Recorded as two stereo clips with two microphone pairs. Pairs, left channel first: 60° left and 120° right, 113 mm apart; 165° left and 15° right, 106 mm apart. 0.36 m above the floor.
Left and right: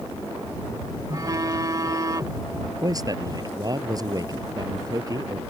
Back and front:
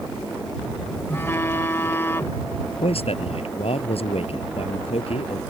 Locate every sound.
1.1 s a phone buzzing: 140° right
2.8 s a man speaking: 175° right